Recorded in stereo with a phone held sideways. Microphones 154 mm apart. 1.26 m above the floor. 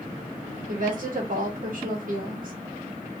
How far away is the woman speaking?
About 1.9 m.